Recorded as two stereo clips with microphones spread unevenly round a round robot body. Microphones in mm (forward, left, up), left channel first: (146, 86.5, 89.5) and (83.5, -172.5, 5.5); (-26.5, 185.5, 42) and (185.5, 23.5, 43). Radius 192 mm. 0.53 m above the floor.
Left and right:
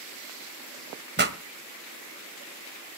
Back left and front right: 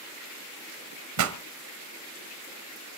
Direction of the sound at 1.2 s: 55° right.